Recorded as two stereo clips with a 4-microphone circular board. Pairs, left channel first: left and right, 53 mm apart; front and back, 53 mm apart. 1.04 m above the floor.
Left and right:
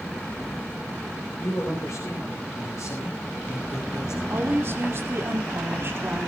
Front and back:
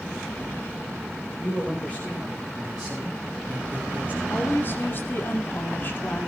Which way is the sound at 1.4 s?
55° left.